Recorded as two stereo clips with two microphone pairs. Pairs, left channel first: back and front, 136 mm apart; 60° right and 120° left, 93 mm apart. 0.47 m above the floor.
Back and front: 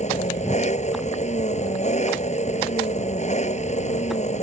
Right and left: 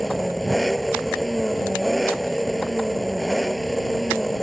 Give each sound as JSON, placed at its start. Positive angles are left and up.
{"t": 0.0, "sound": "an engine running", "azimuth_deg": -150}